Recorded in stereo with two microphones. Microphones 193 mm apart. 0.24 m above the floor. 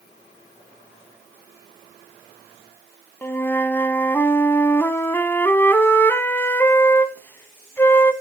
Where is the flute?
10° left (ahead or behind), 0.9 m.